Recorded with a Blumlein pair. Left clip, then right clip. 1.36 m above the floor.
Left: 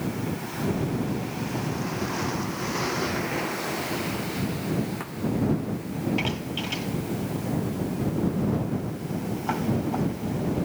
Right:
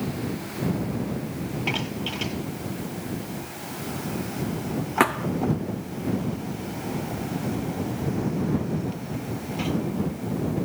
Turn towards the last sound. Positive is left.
turn(degrees=-50)